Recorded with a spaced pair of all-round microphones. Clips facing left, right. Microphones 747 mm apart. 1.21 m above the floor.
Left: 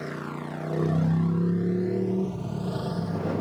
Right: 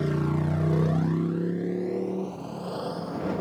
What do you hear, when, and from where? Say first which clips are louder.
0.0 s a motorcycle: right 7 dB; 65° right (ahead or behind); by 3.4 s 50° left (ahead or behind)